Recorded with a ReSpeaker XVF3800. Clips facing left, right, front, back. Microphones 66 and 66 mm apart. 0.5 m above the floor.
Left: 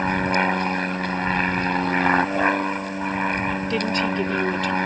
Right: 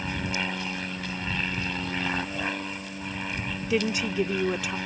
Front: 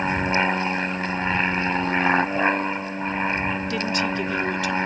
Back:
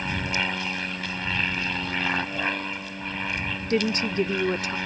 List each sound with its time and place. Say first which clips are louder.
0.0 s an aircraft: left 10 dB, front 6 dB; 55° left
3.7 s a woman speaking: even, back 5 dB; 165° right